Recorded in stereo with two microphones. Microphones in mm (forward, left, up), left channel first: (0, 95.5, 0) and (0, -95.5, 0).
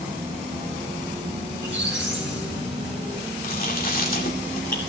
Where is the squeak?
80° right, 3.5 m.